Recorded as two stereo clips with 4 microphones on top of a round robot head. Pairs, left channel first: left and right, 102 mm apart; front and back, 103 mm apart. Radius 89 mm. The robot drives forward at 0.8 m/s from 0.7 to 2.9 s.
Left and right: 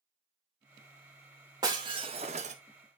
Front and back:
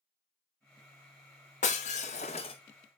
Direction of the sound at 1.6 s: 25° right.